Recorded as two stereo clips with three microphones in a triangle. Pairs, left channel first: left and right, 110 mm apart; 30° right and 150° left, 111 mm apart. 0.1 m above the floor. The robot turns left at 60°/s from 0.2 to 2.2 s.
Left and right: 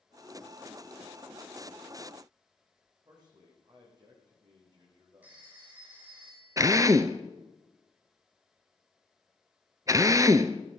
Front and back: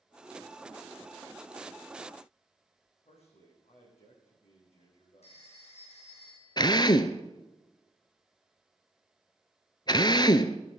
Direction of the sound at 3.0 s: 45° right.